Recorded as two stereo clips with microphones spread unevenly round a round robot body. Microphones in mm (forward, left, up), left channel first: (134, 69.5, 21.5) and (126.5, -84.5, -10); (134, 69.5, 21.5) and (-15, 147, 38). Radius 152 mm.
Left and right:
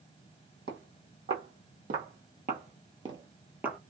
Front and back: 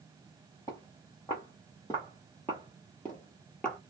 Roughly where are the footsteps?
Right.